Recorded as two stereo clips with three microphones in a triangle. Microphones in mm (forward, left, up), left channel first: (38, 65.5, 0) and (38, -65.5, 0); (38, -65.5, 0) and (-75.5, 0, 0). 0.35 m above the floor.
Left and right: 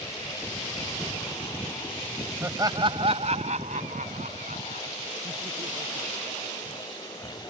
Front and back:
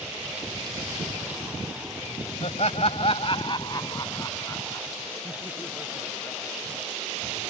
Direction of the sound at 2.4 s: 25° right.